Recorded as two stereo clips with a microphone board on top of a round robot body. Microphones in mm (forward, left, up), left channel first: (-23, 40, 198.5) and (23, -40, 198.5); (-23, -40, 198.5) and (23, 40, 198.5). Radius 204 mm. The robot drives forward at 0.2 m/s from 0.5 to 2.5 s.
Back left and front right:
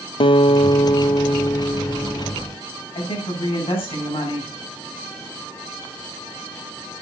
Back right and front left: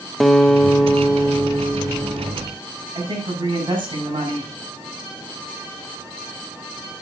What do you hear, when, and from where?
0.2 s a guitar: 150° left, 0.8 m; by 2.3 s 160° left, 1.2 m
3.0 s a woman speaking: 95° left, 5.5 m